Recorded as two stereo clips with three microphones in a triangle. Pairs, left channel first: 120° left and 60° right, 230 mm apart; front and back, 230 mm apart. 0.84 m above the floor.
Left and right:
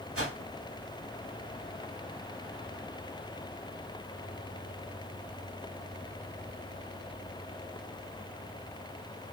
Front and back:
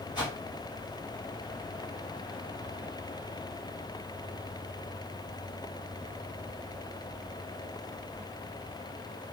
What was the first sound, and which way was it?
A whoosh, 70° right.